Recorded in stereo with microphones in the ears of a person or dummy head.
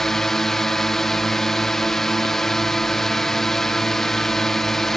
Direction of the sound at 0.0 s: 5° left (ahead or behind).